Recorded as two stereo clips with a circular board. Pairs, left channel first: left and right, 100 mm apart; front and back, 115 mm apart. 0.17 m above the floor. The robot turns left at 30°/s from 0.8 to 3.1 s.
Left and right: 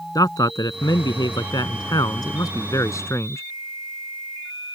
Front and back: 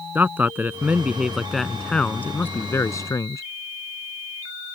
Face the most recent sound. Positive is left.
turn(degrees=45)